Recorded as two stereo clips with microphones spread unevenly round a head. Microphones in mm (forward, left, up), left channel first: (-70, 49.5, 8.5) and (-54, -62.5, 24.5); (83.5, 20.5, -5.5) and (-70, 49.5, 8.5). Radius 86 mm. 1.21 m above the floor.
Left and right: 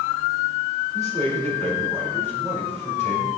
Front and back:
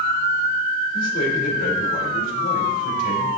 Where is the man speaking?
20° left, 3.5 m.